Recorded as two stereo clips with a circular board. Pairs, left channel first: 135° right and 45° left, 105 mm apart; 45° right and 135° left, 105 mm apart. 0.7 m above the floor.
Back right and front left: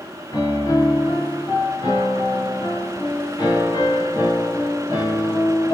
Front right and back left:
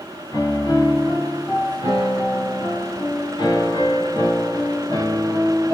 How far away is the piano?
About 1.7 m.